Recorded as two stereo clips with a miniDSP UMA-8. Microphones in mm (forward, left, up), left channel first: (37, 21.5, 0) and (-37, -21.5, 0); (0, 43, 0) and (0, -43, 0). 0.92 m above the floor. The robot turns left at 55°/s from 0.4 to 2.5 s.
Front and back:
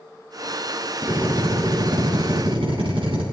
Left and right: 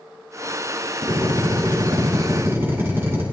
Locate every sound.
1.0 s a drill: 70° right, 7 m; by 3.2 s 150° right, 7 m